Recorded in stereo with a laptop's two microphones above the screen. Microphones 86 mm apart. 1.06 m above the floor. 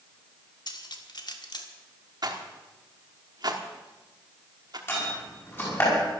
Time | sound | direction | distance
0.7 | cutlery clinking | 55° left (ahead or behind) | 1.5 m
2.2 | a rattle | 50° right (ahead or behind) | 1.4 m
4.9 | a door slam | 25° left (ahead or behind) | 6 m